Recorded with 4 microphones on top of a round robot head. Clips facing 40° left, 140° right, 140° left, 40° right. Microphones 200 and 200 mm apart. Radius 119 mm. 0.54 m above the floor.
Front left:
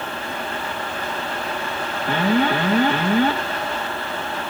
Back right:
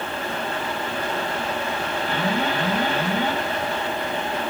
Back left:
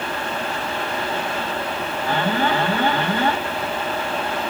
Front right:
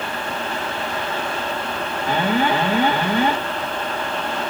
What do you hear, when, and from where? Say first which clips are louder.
2.1 s an alarm: front left 7 dB, front right 2 dB; 35° left, 3 m